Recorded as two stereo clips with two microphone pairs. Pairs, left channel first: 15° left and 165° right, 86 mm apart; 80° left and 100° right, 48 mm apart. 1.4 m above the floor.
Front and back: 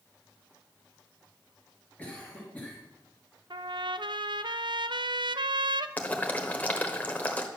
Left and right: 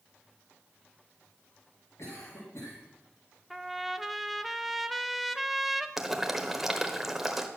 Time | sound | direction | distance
2.0 | a cough | 90° left | 3.5 m
3.5 | a trumpet | 170° left | 0.5 m
6.0 | boiling | 25° right | 1.2 m